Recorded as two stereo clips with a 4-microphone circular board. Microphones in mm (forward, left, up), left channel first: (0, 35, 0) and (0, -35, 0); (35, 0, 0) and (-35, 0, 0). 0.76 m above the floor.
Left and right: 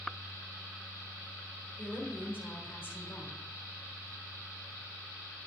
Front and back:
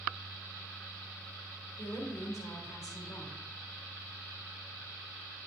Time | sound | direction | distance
1.8 | a woman speaking | 30° left | 3 m